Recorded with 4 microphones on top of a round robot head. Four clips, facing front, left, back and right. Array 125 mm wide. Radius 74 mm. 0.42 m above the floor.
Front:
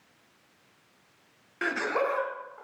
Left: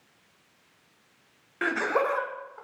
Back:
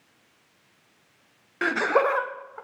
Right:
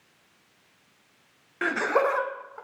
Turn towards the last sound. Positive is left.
turn(degrees=-155)